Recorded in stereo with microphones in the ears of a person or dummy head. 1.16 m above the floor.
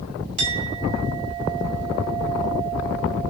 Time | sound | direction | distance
0.4 | a clink | 35° right (ahead or behind) | 3.5 m